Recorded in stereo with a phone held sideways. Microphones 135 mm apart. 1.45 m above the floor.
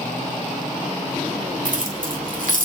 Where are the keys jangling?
80° right, 2 m; by 2.7 s 75° right (ahead or behind), 2.5 m.